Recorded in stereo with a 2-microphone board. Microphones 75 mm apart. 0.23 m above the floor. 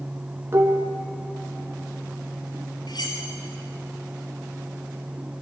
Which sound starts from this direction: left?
Cutlery clinking, at 2.9 s.